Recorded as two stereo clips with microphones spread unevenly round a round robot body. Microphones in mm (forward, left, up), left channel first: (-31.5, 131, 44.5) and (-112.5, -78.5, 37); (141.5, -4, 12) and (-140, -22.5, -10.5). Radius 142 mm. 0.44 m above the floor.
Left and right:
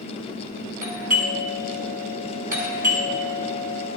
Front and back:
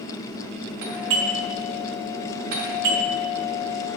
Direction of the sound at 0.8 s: 165° right.